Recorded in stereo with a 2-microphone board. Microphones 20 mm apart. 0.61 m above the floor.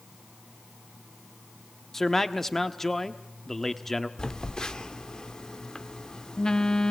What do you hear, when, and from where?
1.9 s a man speaking: 15° left (ahead or behind), 1.0 m
4.2 s a phone buzzing: 35° left (ahead or behind), 0.8 m